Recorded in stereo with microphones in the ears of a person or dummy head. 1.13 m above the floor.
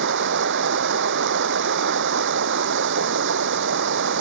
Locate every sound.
0.0 s running water: 60° right (ahead or behind)